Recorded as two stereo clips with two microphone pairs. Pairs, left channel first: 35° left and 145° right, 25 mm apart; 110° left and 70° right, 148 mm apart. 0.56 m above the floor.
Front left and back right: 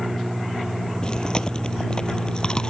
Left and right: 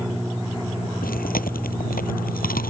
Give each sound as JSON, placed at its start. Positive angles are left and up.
{"t": 1.0, "sound": "chewing", "azimuth_deg": 95}